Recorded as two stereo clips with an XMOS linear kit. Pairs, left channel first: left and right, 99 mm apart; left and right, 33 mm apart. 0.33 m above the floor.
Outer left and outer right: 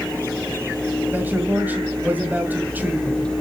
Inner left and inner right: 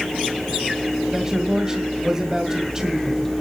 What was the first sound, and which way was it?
A man speaking, 20° right (ahead or behind).